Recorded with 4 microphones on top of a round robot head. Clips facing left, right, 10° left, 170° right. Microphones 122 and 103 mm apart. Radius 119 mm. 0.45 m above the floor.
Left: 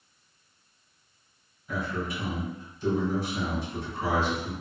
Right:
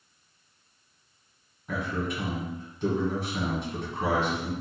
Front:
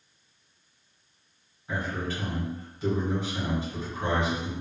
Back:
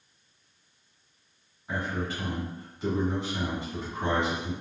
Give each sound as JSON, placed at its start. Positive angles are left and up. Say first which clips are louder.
{"t": 1.7, "sound": "a man speaking", "louder": "right 1 dB, even", "azimuth_deg": -80, "distance_m": 1.5}